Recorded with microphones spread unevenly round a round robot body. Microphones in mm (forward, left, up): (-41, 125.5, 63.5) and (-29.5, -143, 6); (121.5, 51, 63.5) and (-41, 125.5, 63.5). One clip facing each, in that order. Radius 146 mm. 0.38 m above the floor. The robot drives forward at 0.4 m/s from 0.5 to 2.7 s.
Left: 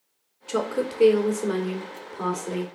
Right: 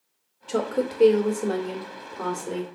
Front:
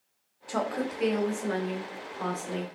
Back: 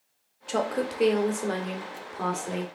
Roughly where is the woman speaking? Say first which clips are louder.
Right 1 dB, back 3 dB; behind.